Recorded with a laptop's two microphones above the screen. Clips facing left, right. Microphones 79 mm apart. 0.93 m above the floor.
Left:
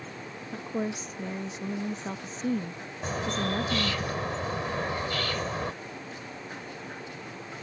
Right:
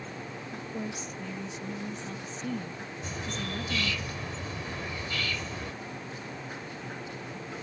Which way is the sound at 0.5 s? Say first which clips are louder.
Left 6 dB; 45° left (ahead or behind).